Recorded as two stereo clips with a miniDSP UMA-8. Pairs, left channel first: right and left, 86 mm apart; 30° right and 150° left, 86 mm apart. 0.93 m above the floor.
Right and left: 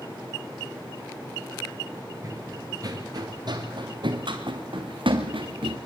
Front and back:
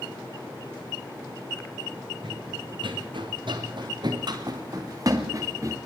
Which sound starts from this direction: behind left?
Running footsteps, at 2.2 s.